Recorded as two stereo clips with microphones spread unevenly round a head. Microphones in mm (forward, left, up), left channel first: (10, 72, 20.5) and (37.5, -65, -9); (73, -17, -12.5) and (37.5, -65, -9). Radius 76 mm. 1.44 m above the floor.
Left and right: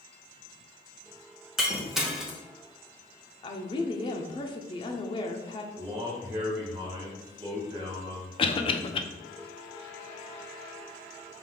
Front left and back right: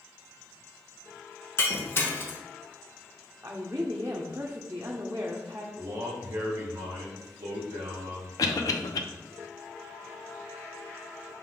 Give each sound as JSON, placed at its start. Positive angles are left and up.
{"t": 1.6, "sound": "breaking glass", "azimuth_deg": 15, "distance_m": 0.8}
{"t": 3.4, "sound": "a woman speaking", "azimuth_deg": 165, "distance_m": 0.5}
{"t": 5.8, "sound": "a man speaking", "azimuth_deg": -145, "distance_m": 1.4}
{"t": 8.4, "sound": "a cough", "azimuth_deg": 60, "distance_m": 0.6}